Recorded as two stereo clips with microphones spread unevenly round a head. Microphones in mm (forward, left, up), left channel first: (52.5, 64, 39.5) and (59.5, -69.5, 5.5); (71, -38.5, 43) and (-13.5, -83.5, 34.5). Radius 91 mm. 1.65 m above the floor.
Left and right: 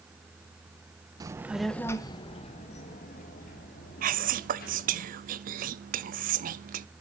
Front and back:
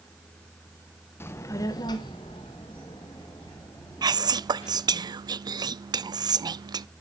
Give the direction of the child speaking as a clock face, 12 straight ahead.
1 o'clock.